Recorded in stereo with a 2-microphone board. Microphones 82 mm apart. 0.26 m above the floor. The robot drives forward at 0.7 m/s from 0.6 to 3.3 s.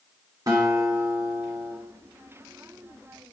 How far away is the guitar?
About 1.6 m.